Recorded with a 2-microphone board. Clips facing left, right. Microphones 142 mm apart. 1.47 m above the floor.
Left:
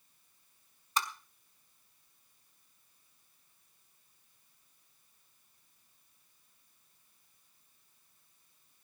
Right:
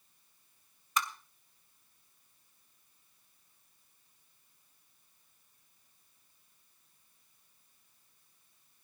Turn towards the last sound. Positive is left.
turn(degrees=35)  # may be behind; listen again after turning